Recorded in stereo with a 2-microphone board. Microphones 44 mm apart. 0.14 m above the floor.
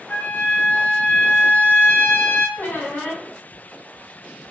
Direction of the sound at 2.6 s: 50° left (ahead or behind).